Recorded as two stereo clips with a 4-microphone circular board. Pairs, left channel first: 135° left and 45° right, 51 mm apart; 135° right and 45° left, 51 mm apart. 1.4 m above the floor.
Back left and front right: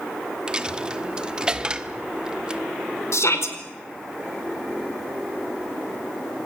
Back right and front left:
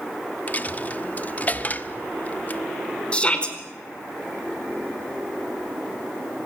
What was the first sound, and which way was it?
A dropped coin, 110° right.